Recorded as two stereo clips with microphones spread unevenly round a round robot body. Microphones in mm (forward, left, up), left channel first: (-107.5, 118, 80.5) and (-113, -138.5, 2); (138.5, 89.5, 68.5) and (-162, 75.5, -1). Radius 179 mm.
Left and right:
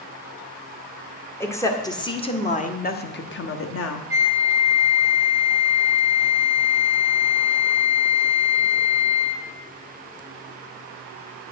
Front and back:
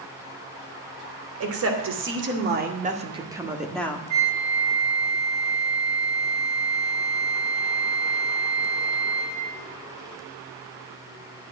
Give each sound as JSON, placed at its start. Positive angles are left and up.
{"t": 1.4, "sound": "a woman speaking", "azimuth_deg": 180, "distance_m": 2.5}
{"t": 4.1, "sound": "a flute", "azimuth_deg": 160, "distance_m": 3.0}